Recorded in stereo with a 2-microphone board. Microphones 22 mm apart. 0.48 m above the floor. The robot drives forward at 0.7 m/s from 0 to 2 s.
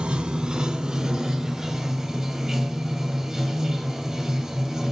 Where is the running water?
60° right (ahead or behind), 0.7 m; by 4.9 s 20° right (ahead or behind), 1.8 m.